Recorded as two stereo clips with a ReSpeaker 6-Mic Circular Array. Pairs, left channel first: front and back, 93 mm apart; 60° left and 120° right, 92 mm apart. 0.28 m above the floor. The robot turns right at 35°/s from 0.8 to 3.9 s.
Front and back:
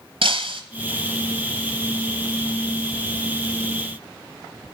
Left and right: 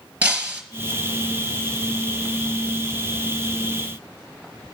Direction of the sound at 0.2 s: 165° left.